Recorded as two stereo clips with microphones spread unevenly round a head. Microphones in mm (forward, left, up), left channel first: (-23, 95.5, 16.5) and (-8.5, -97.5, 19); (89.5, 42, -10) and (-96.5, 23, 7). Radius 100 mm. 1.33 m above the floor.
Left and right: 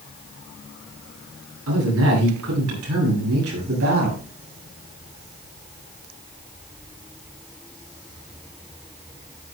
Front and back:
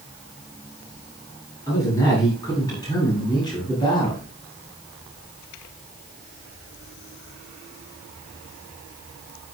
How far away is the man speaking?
About 9.5 m.